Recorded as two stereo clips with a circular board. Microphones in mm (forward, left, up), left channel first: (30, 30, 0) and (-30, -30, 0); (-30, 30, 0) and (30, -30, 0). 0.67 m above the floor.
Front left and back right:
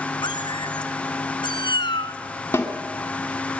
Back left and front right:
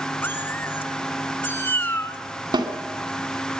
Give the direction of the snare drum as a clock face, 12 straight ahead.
1 o'clock.